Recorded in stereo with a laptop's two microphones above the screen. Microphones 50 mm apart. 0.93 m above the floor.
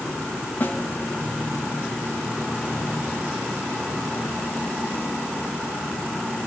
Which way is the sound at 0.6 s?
45° left (ahead or behind).